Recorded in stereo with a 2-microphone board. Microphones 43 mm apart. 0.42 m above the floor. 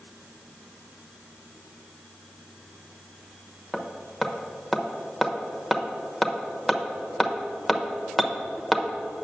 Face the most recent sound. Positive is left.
turn(degrees=0)  # may be behind; listen again after turning